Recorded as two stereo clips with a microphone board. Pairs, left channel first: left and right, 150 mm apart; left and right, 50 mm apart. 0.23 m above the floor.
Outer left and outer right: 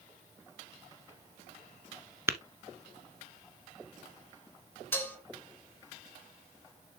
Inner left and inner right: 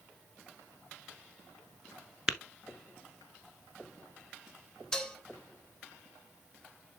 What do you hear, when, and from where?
2.3 s tapping: 15° right (ahead or behind), 0.9 m
4.9 s dishes clattering: 15° left (ahead or behind), 1.9 m